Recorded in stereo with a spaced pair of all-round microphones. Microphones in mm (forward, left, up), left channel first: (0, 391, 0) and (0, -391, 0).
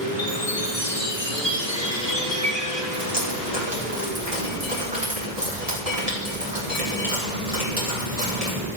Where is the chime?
30° right (ahead or behind), 4 m.